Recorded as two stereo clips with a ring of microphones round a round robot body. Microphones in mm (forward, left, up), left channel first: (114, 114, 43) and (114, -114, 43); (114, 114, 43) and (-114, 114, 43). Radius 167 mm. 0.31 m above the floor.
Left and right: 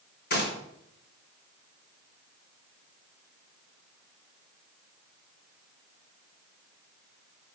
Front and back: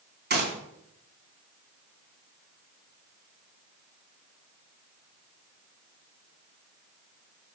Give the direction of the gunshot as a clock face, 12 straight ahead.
7 o'clock.